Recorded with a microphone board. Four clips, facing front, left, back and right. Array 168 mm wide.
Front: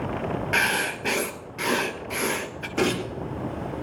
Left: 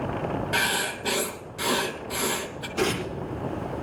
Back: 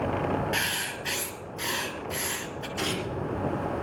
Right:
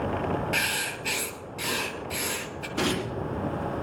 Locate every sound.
0.5 s writing: 25° left, 1.1 m
2.8 s tearing paper: 20° right, 5 m